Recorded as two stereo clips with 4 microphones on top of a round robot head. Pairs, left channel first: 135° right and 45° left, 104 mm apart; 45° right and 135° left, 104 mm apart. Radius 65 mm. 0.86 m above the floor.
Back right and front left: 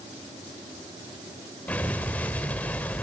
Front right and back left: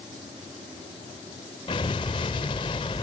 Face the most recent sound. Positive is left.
turn(degrees=-65)